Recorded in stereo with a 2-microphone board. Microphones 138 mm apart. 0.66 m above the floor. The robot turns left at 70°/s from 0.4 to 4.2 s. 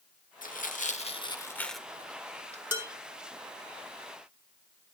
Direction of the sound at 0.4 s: 75° left (ahead or behind).